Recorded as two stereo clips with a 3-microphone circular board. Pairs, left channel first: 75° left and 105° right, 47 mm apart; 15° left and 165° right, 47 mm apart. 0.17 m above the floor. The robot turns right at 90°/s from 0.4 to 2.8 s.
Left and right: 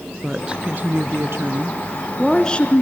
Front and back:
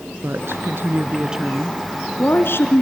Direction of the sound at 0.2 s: Straight behind.